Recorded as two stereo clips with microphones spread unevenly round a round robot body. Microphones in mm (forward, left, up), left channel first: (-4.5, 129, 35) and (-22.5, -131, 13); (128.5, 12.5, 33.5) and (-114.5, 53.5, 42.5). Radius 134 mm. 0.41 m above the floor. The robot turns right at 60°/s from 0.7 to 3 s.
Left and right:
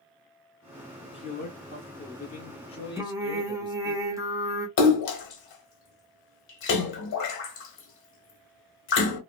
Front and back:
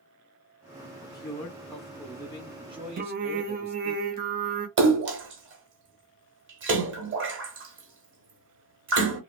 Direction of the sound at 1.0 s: 30° left.